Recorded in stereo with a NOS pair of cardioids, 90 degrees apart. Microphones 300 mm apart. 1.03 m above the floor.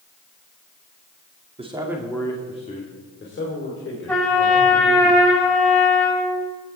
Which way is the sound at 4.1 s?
5° left.